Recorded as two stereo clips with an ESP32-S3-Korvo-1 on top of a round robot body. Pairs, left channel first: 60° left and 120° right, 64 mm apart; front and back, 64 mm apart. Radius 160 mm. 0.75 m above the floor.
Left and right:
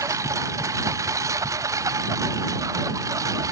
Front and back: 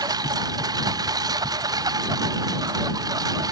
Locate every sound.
0.0 s a lawn mower: 160° right; by 3.5 s 155° right